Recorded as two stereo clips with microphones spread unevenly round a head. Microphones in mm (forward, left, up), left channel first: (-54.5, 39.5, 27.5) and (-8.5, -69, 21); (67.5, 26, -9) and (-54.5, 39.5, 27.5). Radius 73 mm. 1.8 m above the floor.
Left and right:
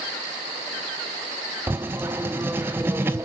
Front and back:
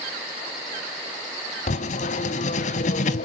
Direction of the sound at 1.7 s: 5° left.